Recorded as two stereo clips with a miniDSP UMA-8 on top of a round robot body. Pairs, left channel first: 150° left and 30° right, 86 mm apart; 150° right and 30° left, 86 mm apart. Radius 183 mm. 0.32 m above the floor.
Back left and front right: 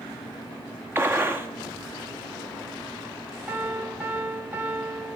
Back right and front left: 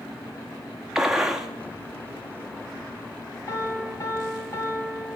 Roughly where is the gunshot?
Ahead right.